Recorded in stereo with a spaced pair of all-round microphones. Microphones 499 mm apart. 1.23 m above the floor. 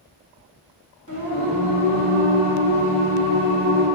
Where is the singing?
35° left (ahead or behind), 2 m.